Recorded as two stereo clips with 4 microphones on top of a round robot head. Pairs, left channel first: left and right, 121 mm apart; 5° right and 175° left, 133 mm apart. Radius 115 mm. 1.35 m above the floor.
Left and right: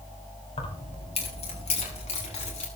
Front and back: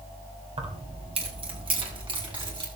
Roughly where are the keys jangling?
Behind left.